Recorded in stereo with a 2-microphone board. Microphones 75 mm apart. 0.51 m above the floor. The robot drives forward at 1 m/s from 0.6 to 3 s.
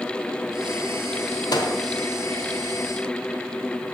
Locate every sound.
1.5 s a microwave: 65° left (ahead or behind), 1.0 m